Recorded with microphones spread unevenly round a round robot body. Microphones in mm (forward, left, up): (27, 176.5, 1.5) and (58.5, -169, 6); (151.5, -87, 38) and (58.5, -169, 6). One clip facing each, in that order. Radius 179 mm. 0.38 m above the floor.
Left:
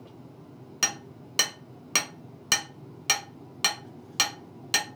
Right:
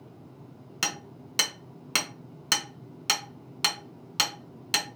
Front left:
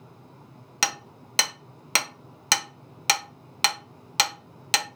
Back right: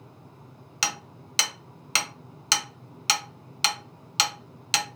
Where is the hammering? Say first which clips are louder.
Right 1 dB, front left 2 dB; straight ahead, 0.7 m.